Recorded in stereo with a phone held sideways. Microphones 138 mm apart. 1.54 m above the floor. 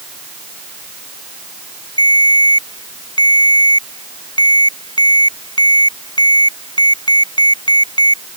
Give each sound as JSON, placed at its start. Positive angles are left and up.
{"t": 2.0, "sound": "a ringtone", "side_deg": 35}